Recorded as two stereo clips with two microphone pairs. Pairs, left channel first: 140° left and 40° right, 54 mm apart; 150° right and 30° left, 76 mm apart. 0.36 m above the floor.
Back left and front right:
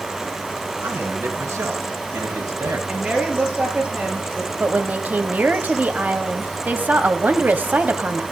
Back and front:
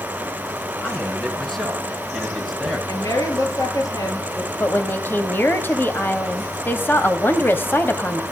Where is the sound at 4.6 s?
90° right, 1.7 m.